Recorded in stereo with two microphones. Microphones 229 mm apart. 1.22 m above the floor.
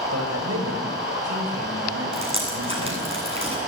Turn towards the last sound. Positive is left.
turn(degrees=-25)  # may be behind; listen again after turning